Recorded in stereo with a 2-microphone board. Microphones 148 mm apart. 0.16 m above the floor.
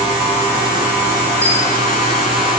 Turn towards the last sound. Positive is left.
turn(degrees=10)  # may be behind; listen again after turning